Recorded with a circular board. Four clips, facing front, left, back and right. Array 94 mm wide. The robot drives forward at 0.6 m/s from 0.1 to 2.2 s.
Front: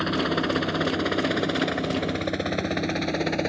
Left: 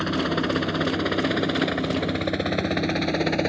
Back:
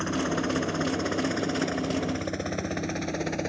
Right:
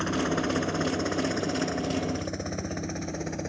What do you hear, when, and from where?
0.0 s a helicopter: 35° left; by 3.5 s 65° left